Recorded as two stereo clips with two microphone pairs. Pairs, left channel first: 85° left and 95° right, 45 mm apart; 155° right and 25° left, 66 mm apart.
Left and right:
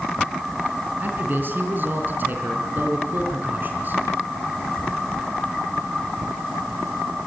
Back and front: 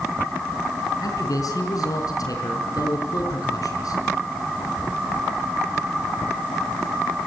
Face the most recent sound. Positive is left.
turn(degrees=-140)